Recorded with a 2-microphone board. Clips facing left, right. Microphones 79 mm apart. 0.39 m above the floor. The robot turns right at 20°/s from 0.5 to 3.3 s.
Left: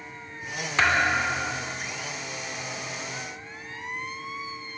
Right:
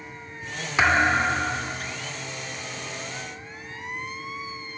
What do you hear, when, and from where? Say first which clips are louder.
0.8 s a thud: right 3 dB; 10° right (ahead or behind), 0.8 m; by 2.0 s 30° right (ahead or behind), 0.8 m